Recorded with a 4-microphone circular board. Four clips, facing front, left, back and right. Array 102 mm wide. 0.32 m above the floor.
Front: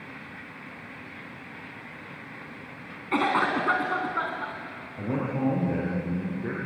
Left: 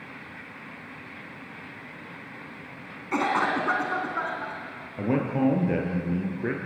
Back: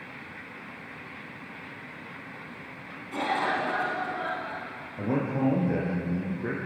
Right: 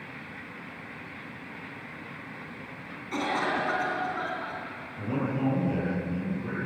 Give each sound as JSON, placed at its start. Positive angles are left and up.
{"t": 3.1, "sound": "a cough", "azimuth_deg": 30, "distance_m": 3.0}
{"t": 5.0, "sound": "a man speaking", "azimuth_deg": 105, "distance_m": 6.0}